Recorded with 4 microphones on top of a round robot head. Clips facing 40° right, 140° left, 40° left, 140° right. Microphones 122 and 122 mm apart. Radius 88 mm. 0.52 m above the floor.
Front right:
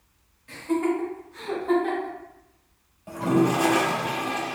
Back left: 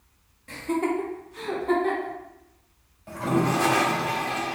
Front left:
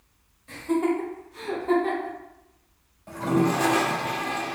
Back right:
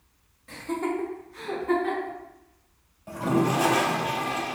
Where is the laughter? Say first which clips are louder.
Front right 1 dB, front left 5 dB; 125° left, 2.0 m; by 2.1 s 15° left, 1.6 m.